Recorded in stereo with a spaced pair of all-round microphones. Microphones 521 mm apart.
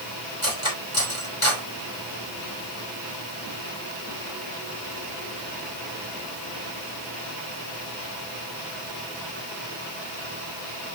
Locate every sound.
0.4 s cutlery clinking: 65° left (ahead or behind), 4.5 m